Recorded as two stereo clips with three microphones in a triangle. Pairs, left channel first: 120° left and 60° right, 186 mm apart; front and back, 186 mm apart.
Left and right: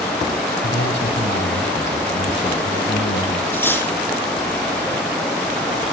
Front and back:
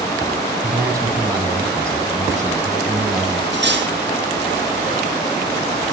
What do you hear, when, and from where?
0.6 s a man speaking: 105° left, 7.5 m
3.5 s cutlery clinking: 160° right, 4.5 m